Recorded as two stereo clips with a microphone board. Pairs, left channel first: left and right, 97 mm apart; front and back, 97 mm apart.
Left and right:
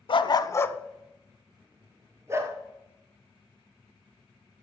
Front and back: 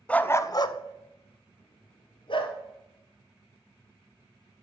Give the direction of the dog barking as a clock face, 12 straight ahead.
9 o'clock.